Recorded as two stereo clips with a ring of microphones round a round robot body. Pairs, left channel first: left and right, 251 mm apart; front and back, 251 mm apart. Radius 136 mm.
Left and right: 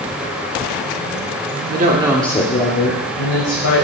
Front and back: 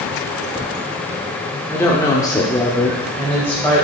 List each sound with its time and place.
1.7 s a woman speaking: 75° right, 1.0 m; by 3.9 s 80° left, 2 m